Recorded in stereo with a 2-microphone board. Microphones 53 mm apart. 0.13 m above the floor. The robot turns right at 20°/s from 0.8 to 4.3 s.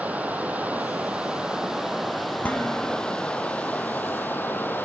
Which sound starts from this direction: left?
Dishes clattering, at 2.4 s.